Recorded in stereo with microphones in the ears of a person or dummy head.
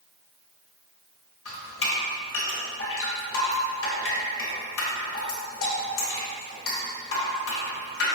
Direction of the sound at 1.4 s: 75° left (ahead or behind).